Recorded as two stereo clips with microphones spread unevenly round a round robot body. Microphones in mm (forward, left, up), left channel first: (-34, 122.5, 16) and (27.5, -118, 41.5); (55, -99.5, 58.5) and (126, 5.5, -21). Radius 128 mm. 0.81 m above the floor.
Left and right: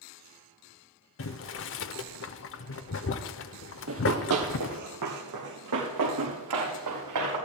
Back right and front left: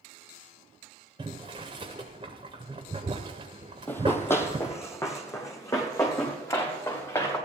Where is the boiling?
145° left, 0.7 m.